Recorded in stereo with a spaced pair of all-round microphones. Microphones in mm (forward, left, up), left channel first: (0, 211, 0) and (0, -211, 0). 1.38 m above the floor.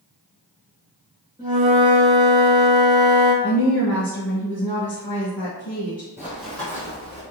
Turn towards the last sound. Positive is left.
turn(degrees=15)  # may be behind; listen again after turning